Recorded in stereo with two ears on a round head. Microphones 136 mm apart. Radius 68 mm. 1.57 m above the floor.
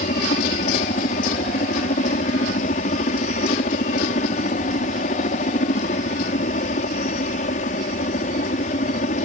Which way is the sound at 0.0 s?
50° left (ahead or behind).